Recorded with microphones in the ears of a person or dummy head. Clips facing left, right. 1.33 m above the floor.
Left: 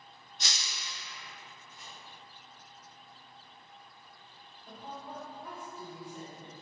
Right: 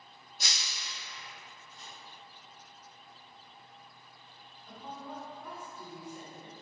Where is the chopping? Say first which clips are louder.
Right 1 dB; 30° right (ahead or behind), 1.2 m.